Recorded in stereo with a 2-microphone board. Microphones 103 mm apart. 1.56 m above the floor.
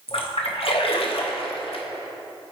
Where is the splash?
65° left (ahead or behind), 0.8 m.